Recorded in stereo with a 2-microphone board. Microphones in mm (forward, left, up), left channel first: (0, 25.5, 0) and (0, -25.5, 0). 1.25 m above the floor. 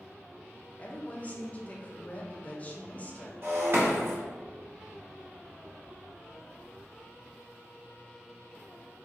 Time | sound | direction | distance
0.8 | a woman speaking | 30° left (ahead or behind) | 0.6 m
3.4 | breaking glass | 50° right (ahead or behind) | 0.7 m